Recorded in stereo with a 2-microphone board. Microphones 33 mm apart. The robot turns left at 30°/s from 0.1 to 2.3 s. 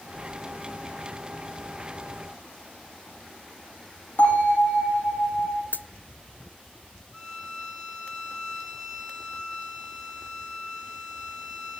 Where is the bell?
70° left (ahead or behind), 9.5 m.